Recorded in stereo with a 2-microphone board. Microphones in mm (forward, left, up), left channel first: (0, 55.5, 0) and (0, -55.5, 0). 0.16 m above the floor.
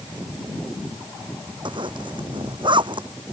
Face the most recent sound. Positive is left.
turn(degrees=-50)  # may be behind; listen again after turning